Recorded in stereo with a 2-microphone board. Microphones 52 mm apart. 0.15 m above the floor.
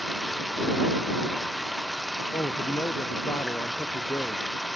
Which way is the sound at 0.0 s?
Centre (ahead or behind).